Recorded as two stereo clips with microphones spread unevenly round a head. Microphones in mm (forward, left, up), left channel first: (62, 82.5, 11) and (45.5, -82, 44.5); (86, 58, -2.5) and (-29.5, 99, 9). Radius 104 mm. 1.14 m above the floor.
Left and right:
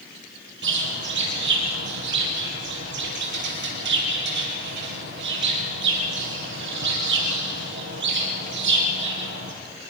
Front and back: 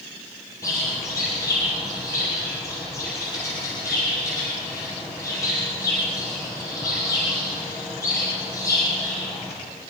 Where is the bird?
95° right, 4.5 m.